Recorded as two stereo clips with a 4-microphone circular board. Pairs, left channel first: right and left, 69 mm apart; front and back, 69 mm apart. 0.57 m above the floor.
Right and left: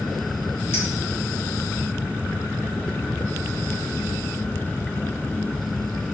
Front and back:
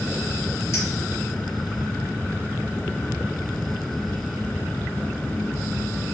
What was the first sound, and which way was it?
A clink, 40° right.